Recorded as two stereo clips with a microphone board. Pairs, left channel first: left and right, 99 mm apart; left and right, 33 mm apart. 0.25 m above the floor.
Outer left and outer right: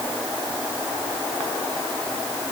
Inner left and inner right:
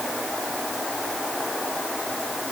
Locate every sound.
Only background noise.